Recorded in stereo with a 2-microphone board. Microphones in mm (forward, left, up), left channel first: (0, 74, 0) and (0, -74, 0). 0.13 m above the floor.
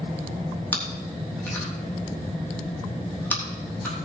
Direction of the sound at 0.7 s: 10° left (ahead or behind).